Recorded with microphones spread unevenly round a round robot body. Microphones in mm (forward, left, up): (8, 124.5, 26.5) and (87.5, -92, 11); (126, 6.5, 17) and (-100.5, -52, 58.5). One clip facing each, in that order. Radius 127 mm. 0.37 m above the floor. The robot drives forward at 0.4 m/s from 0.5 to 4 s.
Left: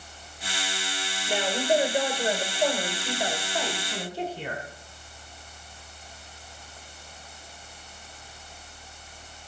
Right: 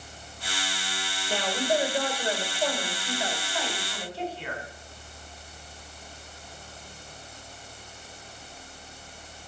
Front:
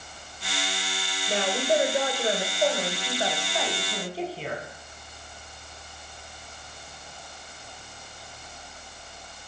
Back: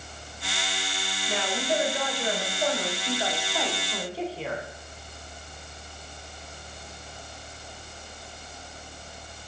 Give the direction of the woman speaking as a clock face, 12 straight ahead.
10 o'clock.